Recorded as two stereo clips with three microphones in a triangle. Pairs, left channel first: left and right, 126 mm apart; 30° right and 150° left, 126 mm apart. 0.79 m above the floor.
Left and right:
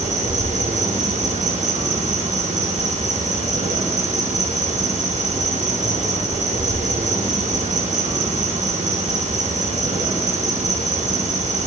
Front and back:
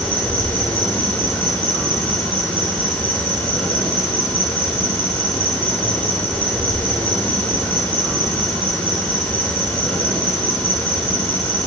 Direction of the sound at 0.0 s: 105° right.